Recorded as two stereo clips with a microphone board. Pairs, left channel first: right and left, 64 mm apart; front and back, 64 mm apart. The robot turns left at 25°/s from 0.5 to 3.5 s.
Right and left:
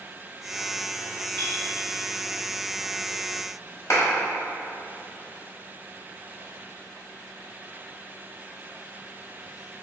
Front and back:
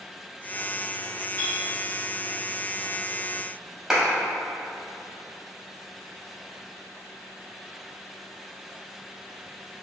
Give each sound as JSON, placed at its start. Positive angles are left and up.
{"t": 1.4, "sound": "a clink", "azimuth_deg": -20, "distance_m": 1.6}
{"t": 3.9, "sound": "a clap", "azimuth_deg": -100, "distance_m": 1.2}